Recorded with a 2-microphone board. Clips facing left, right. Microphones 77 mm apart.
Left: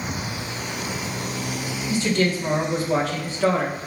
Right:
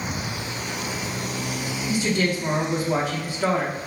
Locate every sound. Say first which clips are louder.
1.9 s a woman speaking: left 2 dB; 15° right (ahead or behind), 0.6 m